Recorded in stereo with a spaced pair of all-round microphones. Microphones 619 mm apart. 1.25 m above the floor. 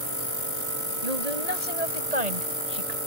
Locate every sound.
1.0 s a woman speaking: 80° right; by 3.0 s 85° right